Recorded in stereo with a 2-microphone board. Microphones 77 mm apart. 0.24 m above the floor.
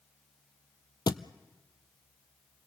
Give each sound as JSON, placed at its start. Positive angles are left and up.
{"t": 1.1, "sound": "a thud", "side_deg": 70, "distance_m": 0.6}